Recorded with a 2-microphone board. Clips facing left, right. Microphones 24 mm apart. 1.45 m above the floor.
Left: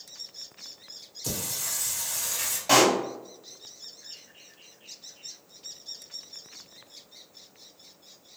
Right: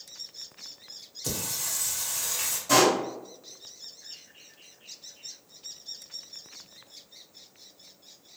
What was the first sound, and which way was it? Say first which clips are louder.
Singing: even; 10° right (ahead or behind).